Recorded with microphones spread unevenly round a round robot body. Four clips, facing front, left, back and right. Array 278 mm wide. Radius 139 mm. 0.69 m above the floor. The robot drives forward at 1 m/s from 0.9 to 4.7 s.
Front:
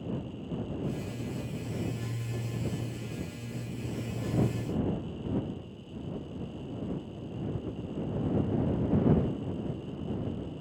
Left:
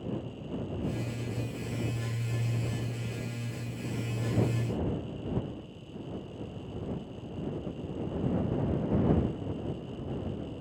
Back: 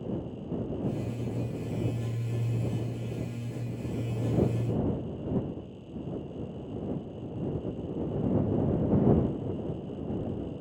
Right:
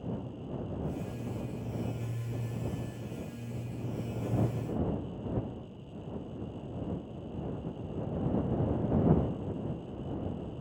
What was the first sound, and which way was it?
Only background noise.